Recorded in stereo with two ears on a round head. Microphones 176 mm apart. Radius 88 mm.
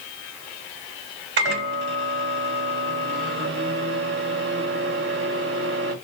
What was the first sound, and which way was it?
A microwave, 65° right (ahead or behind).